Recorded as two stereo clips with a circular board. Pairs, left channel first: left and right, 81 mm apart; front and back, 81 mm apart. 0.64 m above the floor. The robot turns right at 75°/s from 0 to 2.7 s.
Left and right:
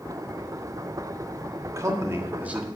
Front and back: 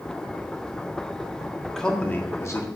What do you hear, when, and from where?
1.7 s a man speaking: 90° right, 1.5 m; by 2.6 s 15° right, 1.5 m